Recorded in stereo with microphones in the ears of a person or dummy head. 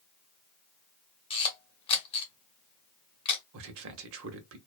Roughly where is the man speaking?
Right.